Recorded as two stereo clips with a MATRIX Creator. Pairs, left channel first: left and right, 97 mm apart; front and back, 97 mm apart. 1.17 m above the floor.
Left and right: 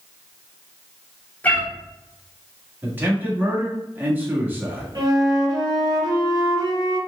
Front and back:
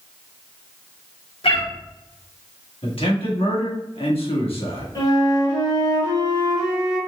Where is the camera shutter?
I don't hear a camera shutter.